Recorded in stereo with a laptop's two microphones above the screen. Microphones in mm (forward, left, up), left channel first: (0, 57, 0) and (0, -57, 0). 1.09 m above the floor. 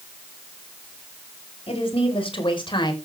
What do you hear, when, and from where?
1.7 s a woman speaking: 55° left (ahead or behind), 4.5 m; by 2.9 s 40° left (ahead or behind), 3.5 m